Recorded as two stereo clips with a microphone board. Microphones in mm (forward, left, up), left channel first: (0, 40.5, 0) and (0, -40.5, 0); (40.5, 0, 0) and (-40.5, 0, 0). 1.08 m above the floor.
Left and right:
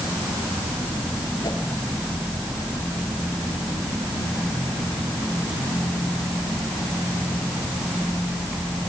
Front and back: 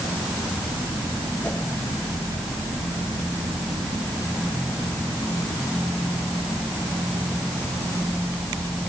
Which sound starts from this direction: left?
A whoosh, at 1.4 s.